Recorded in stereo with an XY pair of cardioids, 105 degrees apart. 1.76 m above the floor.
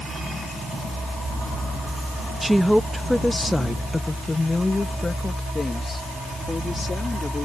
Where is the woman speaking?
10° right; by 7.5 s 30° left.